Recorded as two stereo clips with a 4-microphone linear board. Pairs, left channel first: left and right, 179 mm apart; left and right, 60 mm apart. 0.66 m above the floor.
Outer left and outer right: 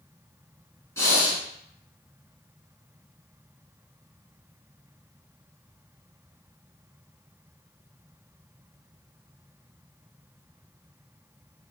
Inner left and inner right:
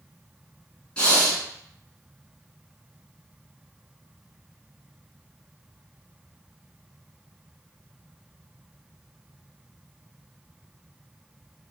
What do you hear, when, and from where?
1.0 s breathing: 15° left (ahead or behind), 1.0 m